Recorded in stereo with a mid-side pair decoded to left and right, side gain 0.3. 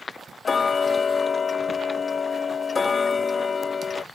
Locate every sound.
0.5 s ticking: 55° left